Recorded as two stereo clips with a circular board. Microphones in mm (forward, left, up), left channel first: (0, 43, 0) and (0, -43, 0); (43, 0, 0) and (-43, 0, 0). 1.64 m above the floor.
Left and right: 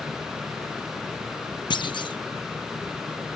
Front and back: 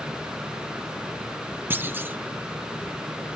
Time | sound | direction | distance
1.7 | a clunk | 115° left | ?